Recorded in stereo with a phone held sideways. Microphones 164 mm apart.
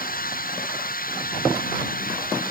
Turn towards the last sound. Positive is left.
turn(degrees=60)  # may be behind; listen again after turning